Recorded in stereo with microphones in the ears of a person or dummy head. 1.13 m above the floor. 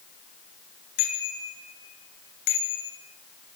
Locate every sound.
1.0 s a bicycle bell: 70° left (ahead or behind), 5.5 m; by 2.9 s 65° left (ahead or behind), 4 m